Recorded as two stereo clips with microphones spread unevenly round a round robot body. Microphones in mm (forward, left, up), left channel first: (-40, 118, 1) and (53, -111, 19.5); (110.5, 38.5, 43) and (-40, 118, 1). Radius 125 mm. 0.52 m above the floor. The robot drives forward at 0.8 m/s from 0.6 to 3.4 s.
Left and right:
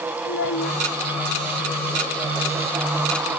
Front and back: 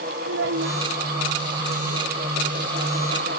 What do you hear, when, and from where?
0.2 s a child speaking: 155° left